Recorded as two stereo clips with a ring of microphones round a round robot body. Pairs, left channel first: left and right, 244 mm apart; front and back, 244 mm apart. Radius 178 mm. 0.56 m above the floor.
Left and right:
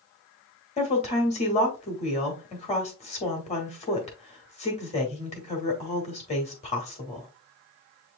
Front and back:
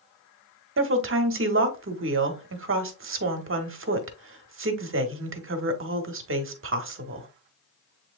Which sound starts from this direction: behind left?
A woman speaking, at 0.8 s.